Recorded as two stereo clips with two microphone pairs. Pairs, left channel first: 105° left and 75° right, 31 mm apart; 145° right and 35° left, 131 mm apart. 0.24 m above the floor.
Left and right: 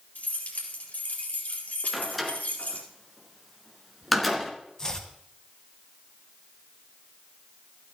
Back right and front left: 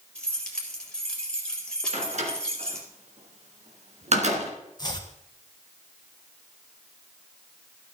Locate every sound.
0.1 s keys jangling: 130° left, 3.5 m
1.9 s a door slam: 15° left, 2.5 m
4.8 s chopping: 170° left, 1.8 m